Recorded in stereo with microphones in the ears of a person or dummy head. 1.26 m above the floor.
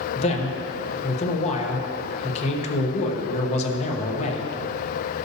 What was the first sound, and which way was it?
A man speaking, 35° left (ahead or behind).